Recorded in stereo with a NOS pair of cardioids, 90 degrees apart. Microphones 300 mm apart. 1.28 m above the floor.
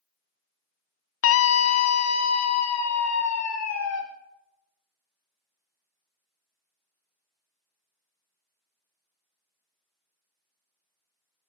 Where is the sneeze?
No sneeze in this recording.